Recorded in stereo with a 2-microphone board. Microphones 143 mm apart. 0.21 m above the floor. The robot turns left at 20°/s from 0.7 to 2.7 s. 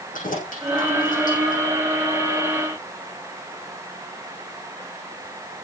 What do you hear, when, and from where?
0.1 s keys jangling: 85° left, 6.5 m; by 1.6 s 75° left (ahead or behind), 6.5 m